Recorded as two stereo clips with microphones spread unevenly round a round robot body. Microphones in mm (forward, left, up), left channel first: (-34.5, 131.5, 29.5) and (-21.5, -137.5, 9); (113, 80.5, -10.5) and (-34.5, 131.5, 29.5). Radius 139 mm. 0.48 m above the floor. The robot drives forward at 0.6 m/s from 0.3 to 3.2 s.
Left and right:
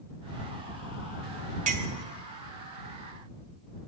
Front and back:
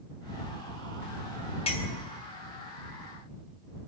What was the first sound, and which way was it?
A clink, 35° right.